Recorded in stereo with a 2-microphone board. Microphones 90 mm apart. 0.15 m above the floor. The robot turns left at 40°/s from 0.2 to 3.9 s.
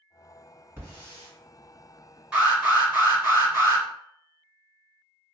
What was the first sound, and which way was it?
A hiss, 20° right (ahead or behind).